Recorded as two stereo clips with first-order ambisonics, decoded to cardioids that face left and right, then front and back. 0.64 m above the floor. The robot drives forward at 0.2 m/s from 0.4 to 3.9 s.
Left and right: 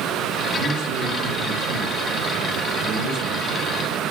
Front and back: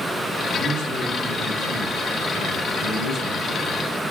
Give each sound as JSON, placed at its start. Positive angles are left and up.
{"t": 0.6, "sound": "a man speaking", "azimuth_deg": -50, "distance_m": 1.9}